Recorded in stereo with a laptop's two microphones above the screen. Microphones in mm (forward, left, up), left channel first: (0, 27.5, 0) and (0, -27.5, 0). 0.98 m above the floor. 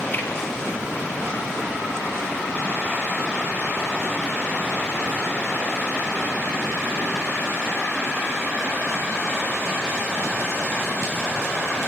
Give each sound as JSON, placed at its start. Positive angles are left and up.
{"t": 0.1, "sound": "a finger snap", "side_deg": 30, "distance_m": 7.5}